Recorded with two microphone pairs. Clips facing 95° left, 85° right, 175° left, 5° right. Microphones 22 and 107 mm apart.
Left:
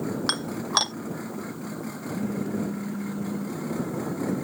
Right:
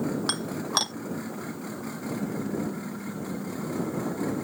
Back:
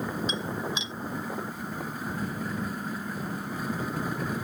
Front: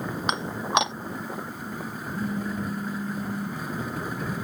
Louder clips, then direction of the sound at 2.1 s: Left 3 dB, front 5 dB; 55° left.